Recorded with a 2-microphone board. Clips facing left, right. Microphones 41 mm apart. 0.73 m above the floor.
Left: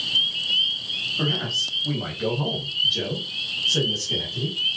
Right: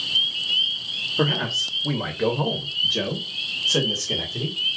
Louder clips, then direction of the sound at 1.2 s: Right 4 dB; 65° right (ahead or behind).